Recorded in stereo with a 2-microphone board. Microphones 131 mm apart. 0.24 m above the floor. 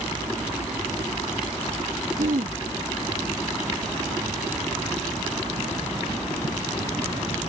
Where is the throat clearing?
75° right (ahead or behind).